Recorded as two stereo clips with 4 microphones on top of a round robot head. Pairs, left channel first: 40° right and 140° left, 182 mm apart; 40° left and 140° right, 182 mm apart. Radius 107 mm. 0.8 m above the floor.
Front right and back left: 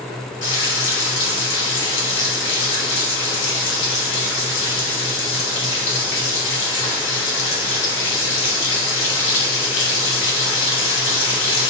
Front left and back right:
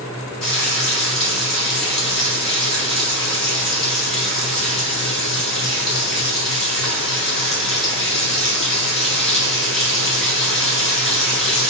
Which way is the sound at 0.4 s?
45° right.